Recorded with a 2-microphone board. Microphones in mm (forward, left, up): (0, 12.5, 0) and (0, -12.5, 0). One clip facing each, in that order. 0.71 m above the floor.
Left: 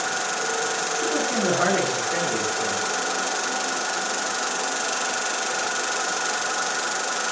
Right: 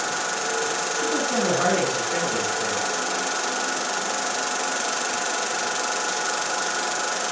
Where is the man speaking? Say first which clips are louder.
Even; 10° left (ahead or behind), 5.5 m.